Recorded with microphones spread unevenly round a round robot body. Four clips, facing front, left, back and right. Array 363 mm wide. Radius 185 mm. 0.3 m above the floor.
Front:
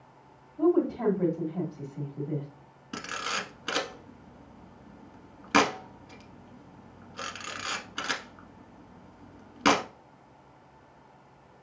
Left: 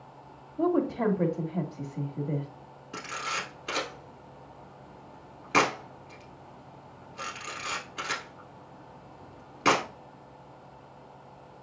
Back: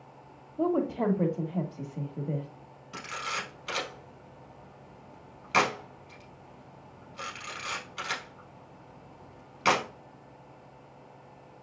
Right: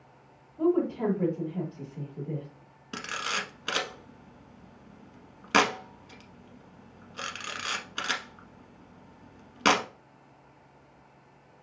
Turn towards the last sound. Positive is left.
turn(degrees=-40)